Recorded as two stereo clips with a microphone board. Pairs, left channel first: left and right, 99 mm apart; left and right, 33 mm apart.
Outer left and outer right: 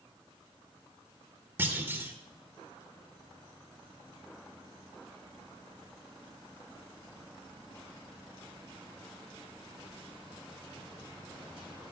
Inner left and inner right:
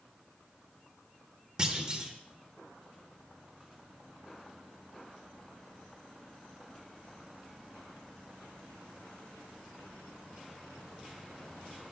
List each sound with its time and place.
1.6 s a clunk: 25° right (ahead or behind), 1.0 m